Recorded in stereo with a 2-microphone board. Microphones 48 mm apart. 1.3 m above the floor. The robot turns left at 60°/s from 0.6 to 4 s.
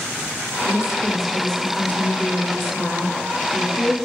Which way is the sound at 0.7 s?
145° right.